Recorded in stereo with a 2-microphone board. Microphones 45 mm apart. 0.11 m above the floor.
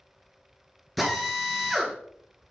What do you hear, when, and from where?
1.0 s a drill: centre (ahead or behind), 2 m